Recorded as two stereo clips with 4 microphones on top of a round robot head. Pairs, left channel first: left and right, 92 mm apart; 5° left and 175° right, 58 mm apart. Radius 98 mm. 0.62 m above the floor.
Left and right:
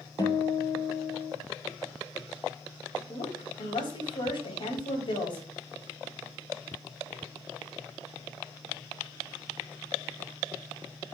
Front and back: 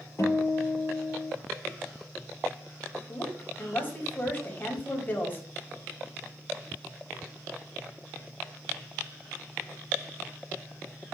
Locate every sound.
0.2 s a guitar: 40° left, 4 m
3.1 s a woman speaking: 60° left, 4.5 m